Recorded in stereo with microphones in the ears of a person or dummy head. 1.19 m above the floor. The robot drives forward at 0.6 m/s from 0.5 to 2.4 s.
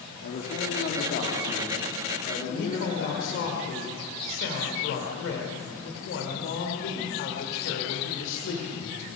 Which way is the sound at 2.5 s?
75° left (ahead or behind).